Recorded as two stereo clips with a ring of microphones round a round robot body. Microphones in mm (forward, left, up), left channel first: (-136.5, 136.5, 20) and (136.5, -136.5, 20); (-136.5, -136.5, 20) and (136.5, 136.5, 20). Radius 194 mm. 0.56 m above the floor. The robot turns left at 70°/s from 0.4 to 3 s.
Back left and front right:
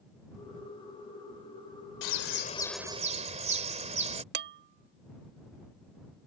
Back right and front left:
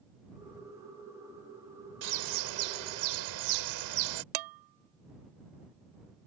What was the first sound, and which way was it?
A bird, 95° left.